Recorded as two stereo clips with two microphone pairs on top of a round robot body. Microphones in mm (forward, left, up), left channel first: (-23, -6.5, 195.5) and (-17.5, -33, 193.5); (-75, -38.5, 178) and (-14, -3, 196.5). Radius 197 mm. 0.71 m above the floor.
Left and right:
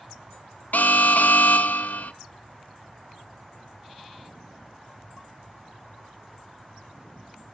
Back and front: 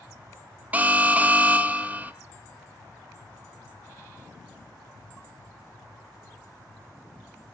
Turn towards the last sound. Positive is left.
turn(degrees=105)